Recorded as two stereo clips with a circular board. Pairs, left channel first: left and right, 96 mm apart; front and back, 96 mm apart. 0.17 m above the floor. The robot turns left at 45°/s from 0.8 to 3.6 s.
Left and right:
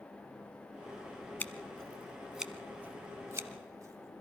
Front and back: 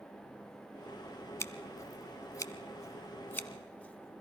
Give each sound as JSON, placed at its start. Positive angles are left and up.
{"t": 1.4, "sound": "scissors", "azimuth_deg": 35, "distance_m": 1.0}